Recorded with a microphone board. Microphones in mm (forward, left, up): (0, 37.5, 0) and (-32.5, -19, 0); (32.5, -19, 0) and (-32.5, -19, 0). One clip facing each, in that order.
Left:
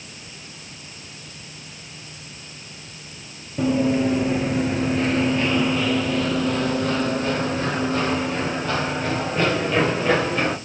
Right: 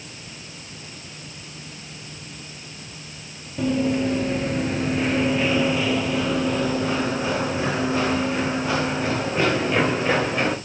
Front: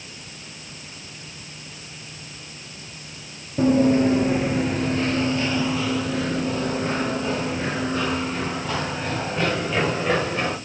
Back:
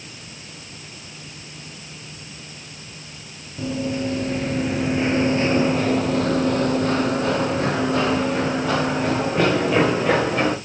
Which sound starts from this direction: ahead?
Running footsteps, at 3.6 s.